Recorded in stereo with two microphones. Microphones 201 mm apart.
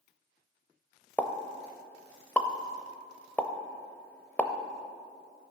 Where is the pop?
10° left (ahead or behind), 0.6 m.